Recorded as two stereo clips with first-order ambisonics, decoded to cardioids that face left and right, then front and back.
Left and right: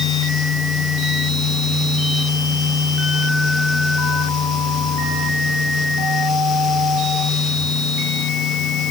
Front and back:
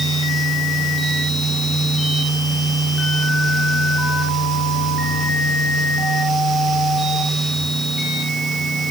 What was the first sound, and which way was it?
Only background noise.